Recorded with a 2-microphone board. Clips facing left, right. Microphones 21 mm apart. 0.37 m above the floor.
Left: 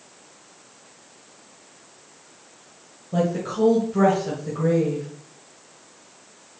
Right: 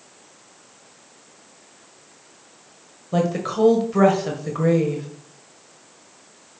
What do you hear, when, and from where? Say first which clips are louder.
3.1 s a woman speaking: right 2 dB; 40° right (ahead or behind), 1.9 m